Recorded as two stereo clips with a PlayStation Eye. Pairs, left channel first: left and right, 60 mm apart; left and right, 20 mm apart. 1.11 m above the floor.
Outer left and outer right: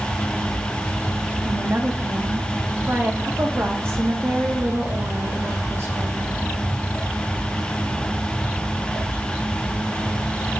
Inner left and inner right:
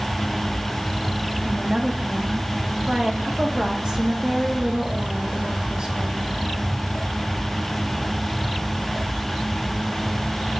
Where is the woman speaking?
45° right (ahead or behind), 1.3 m.